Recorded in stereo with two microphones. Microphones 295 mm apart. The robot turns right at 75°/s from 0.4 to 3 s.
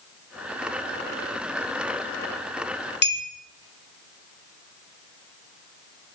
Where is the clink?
35° left (ahead or behind), 1.0 m.